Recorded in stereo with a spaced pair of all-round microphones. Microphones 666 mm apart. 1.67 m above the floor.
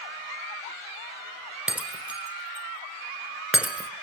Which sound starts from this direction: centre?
Breaking glass, at 1.7 s.